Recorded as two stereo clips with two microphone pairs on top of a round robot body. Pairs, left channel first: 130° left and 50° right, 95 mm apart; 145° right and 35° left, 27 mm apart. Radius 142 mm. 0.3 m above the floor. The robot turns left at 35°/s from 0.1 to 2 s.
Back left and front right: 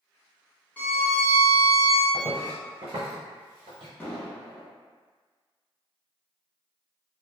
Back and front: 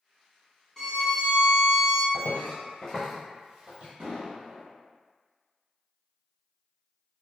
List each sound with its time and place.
0.8 s a violin: 170° left, 1.4 m; by 2.0 s 125° left, 1.4 m
2.1 s footsteps: 110° right, 0.9 m; by 3.9 s 10° right, 0.8 m
4.0 s an explosion: 60° left, 0.7 m